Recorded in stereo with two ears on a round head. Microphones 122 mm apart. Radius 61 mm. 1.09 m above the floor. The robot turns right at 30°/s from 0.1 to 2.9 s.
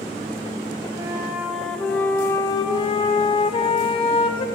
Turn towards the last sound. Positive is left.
turn(degrees=40)